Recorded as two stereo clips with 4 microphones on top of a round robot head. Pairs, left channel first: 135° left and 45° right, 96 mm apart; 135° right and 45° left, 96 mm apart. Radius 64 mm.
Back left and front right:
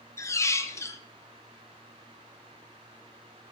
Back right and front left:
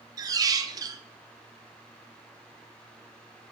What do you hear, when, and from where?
0.2 s a squeak: 85° left, 0.7 m